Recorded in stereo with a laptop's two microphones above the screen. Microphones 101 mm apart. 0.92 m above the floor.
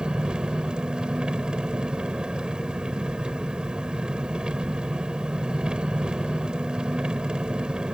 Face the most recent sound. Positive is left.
turn(degrees=-10)  # may be behind; listen again after turning